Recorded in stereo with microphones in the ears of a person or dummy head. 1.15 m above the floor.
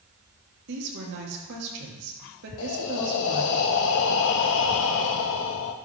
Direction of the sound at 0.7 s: 65° right (ahead or behind).